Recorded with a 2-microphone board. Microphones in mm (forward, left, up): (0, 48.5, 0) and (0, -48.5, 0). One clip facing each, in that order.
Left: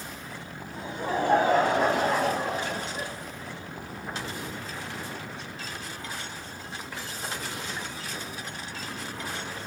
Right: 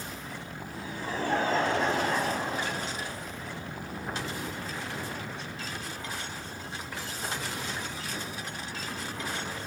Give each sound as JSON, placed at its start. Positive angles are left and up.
{"t": 0.7, "sound": "laughter", "side_deg": 55, "distance_m": 3.0}